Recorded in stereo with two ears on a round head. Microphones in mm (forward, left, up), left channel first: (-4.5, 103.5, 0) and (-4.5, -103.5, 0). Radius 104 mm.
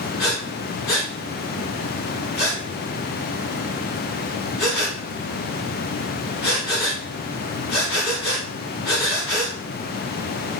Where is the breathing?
45° left (ahead or behind), 3 m.